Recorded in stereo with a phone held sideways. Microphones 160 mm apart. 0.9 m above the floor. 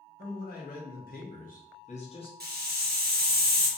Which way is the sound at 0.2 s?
65° left (ahead or behind).